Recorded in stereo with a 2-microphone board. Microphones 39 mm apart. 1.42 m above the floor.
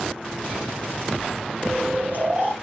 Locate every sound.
1.6 s snoring: 50° right (ahead or behind), 1.5 m